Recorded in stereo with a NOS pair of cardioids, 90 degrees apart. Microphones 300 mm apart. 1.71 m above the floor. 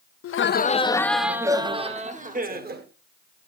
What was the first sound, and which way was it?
Laughter, 50° left.